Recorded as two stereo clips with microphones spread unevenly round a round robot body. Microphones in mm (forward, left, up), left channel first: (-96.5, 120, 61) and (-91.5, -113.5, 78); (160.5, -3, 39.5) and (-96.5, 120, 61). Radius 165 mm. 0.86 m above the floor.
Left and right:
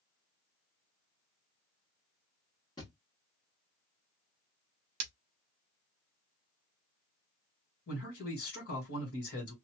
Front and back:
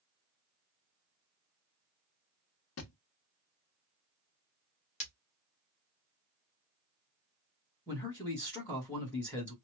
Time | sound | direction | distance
2.8 | a thud | 15° left | 0.8 m
5.0 | breaking glass | 95° right | 0.9 m
7.9 | a man speaking | 55° left | 1.6 m